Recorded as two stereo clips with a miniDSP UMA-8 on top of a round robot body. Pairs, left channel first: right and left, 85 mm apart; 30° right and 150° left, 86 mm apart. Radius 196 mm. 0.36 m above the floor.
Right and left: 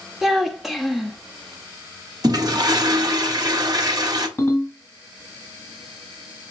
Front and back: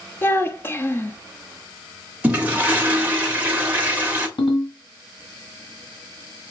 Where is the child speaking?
5° left, 1.1 m.